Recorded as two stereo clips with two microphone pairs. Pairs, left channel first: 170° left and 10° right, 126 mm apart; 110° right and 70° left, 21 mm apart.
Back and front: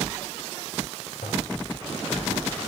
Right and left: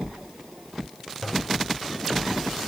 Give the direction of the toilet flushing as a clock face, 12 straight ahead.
6 o'clock.